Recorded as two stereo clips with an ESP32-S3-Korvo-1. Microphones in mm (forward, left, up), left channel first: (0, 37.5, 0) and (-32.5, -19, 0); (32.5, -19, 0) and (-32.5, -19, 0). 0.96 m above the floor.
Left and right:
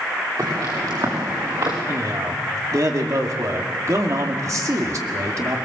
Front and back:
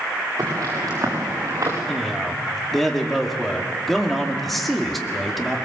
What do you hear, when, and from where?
0.4 s footsteps: 140° right, 6 m; by 1.8 s 135° right, 5.5 m
1.9 s a man speaking: 90° right, 2 m